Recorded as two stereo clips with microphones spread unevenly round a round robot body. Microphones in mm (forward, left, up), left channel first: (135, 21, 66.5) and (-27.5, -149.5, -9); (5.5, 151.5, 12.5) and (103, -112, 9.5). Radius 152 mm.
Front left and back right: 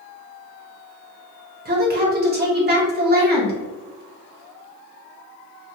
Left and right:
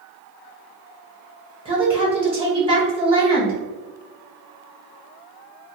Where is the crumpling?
I don't hear crumpling.